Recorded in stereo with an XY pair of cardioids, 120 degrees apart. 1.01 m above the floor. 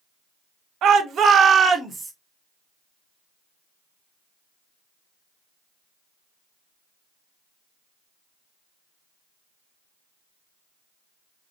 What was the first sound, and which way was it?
A shout, 65° right.